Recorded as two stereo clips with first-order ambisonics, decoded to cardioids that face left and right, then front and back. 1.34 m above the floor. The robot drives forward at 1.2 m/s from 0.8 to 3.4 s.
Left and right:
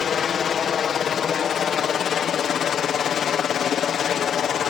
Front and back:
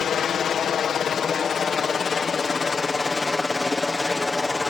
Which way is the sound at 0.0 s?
45° left.